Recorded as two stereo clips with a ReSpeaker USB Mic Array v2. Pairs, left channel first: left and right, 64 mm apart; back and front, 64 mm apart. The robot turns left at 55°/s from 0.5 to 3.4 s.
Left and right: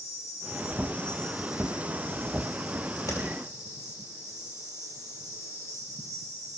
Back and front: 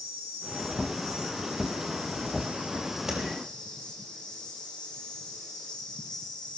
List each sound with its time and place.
0.0 s an insect: 50° left, 2.5 m; by 6.6 s 110° right, 2.5 m
3.1 s tapping: 80° left, 3.5 m; by 3.2 s 75° left, 3.5 m